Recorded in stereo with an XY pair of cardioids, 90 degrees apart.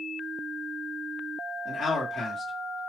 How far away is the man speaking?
About 1.7 m.